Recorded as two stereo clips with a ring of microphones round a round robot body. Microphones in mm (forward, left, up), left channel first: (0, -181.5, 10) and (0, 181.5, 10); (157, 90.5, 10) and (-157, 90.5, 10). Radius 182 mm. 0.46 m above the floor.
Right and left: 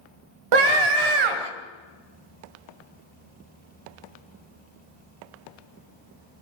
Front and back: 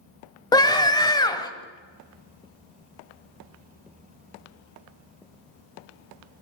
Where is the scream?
75° left, 2.5 m.